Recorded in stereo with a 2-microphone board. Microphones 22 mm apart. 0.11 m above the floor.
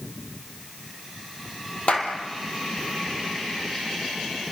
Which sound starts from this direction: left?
A clap, at 1.9 s.